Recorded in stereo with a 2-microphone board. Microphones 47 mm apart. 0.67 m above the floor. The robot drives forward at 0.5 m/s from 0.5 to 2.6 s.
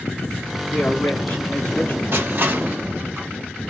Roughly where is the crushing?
Right.